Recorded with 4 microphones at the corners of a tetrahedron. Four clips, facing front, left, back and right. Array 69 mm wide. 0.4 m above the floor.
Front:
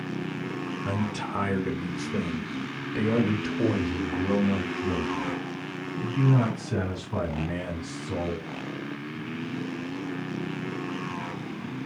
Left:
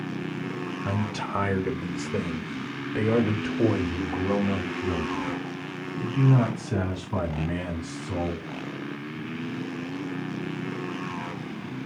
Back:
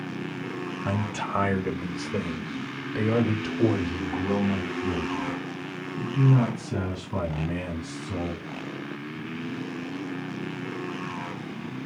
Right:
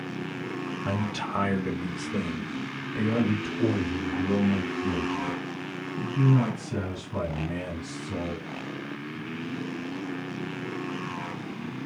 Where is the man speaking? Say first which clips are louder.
Even, back 2 dB; 175° right, 1.5 m; by 8.4 s 75° left, 4.5 m.